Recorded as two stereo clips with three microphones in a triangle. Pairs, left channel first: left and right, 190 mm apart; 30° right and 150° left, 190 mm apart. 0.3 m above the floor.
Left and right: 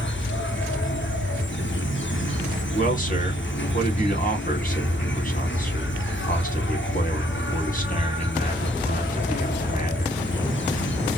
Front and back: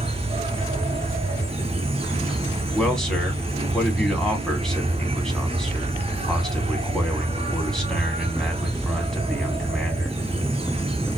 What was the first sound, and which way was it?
An insect, 90° left.